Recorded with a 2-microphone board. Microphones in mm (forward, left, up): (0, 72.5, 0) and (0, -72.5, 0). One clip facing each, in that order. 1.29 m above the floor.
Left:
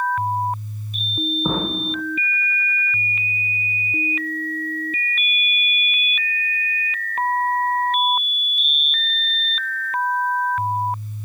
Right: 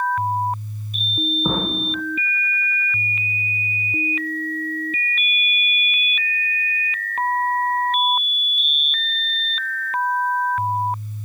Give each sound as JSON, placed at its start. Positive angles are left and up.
{"t": 1.4, "sound": "an explosion", "side_deg": 0, "distance_m": 1.0}